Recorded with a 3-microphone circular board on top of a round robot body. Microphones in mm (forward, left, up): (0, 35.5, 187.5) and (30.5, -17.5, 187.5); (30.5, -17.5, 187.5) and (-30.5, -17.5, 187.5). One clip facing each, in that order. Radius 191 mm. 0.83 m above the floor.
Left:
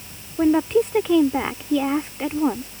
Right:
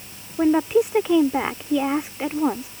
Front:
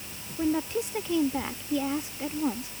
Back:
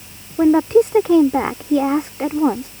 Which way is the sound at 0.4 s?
145° right.